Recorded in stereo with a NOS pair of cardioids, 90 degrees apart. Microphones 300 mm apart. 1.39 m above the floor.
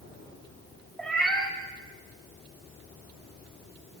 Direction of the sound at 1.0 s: 5° left.